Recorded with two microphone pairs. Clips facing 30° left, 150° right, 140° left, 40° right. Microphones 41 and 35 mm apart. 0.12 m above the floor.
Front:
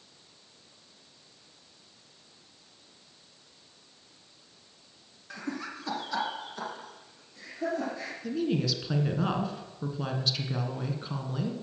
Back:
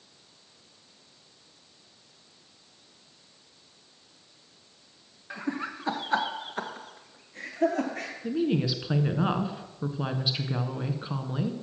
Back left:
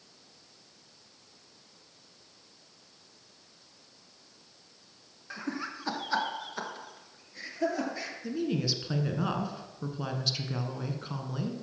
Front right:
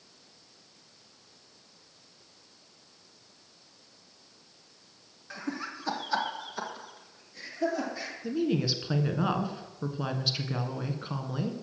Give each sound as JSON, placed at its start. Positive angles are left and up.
{"t": 5.3, "sound": "laughter", "azimuth_deg": -145, "distance_m": 1.3}
{"t": 8.2, "sound": "a woman speaking", "azimuth_deg": -105, "distance_m": 1.2}